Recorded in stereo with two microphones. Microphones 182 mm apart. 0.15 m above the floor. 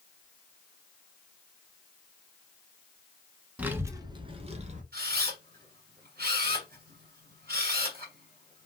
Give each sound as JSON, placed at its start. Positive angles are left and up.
{"t": 3.6, "sound": "a child speaking", "side_deg": -10, "distance_m": 0.9}
{"t": 4.9, "sound": "a camera shutter", "side_deg": -55, "distance_m": 2.5}